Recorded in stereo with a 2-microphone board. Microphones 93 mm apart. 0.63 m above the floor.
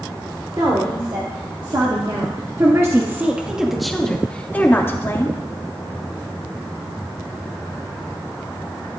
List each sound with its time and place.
0.6 s a woman speaking: 55° right (ahead or behind), 2.5 m; by 5.4 s 35° left (ahead or behind), 1.7 m